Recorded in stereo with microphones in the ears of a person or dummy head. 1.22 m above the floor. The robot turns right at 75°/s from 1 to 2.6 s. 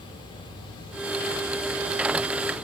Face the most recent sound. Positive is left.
No sound to turn to.